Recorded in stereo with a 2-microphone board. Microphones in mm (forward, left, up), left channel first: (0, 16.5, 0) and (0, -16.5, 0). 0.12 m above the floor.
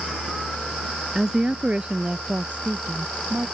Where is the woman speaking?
15° right (ahead or behind); by 3.5 s 40° right (ahead or behind).